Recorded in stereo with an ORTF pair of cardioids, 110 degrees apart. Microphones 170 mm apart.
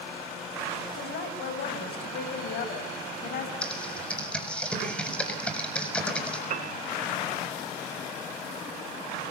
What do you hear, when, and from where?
0.9 s a woman speaking: 70° left, 6.5 m
3.6 s typing on a keyboard: 5° left, 6.5 m
6.5 s a piano: 50° right, 2 m